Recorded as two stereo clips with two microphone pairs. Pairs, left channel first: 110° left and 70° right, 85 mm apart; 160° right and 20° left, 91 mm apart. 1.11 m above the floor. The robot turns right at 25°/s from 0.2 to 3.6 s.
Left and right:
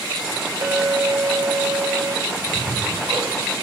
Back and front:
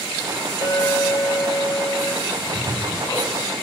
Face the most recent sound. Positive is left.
turn(degrees=-90)